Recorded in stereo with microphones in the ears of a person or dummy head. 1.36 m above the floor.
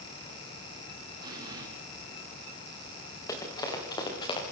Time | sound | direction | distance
1.2 | an explosion | 20° right (ahead or behind) | 8 m
3.3 | running footsteps | 20° left (ahead or behind) | 9.5 m